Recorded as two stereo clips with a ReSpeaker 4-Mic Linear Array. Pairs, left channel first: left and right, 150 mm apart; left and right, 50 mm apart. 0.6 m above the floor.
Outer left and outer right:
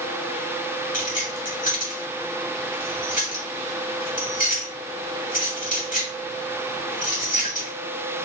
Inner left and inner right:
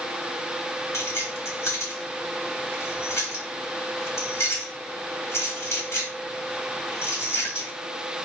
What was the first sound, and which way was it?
Keys jangling, 65° left (ahead or behind).